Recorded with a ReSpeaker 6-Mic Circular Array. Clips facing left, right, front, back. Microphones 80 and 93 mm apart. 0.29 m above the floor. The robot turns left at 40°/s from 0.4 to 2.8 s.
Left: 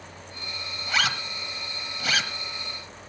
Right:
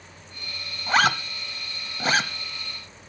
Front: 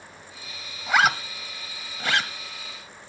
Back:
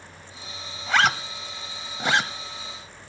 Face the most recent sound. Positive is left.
turn(degrees=-150)